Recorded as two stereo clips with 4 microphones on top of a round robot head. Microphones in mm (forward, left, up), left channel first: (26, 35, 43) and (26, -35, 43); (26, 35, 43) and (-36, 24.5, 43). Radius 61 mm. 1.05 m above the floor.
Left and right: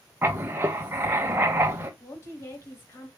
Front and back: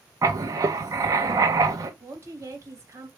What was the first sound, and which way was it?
Writing, 150° right.